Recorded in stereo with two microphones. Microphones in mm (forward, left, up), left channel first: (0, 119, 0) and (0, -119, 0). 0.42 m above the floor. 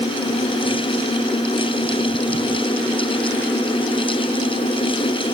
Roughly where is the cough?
I don't hear a cough.